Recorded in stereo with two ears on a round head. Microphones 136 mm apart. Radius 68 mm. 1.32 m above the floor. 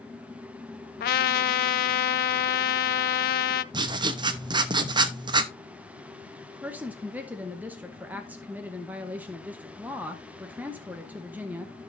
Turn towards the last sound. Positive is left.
turn(degrees=-10)  # may be behind; listen again after turning